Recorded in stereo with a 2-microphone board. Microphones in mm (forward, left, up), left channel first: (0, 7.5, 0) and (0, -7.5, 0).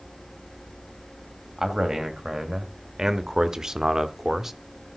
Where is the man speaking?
50° right (ahead or behind), 2.5 m; by 4.5 s 30° right (ahead or behind), 1.0 m.